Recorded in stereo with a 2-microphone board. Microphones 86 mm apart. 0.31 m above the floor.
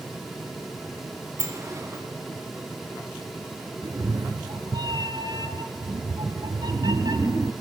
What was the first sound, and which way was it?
A sliding door, 35° right (ahead or behind).